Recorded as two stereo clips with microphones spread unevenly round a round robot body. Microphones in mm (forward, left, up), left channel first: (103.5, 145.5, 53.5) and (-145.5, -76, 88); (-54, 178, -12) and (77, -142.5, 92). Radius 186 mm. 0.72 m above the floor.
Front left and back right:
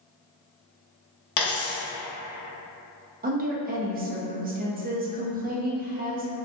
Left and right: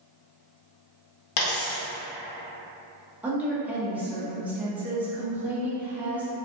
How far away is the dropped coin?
About 0.8 m.